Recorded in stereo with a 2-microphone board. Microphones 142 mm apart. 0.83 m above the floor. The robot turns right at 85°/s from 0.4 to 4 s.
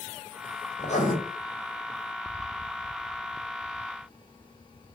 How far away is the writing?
About 1.6 m.